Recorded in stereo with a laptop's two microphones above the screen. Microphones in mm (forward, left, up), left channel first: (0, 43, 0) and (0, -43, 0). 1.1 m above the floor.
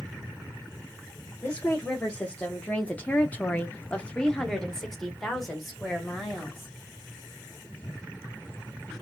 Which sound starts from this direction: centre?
A woman speaking, at 1.4 s.